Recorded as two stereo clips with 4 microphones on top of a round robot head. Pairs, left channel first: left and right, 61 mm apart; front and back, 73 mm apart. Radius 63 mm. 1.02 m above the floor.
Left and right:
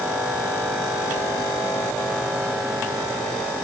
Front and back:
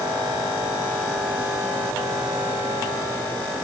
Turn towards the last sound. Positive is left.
No sound to turn to.